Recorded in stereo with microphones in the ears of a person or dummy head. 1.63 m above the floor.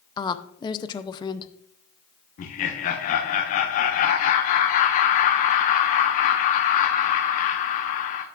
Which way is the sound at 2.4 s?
40° left (ahead or behind).